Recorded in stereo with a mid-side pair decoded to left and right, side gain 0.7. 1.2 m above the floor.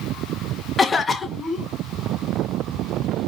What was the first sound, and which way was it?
A cough, 25° left.